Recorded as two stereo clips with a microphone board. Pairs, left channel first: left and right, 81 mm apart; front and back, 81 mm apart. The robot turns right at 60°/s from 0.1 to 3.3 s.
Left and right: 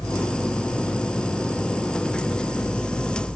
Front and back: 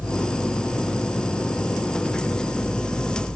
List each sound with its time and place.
Only background noise.